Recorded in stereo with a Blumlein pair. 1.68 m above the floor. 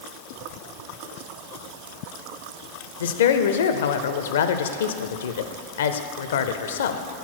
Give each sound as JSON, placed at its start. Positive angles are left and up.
{"t": 3.0, "sound": "a woman speaking", "azimuth_deg": 60, "distance_m": 0.5}